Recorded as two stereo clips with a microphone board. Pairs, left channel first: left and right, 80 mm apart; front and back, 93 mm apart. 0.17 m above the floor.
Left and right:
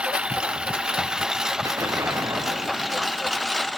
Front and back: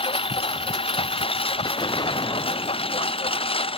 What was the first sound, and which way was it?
A lawn mower, 15° right.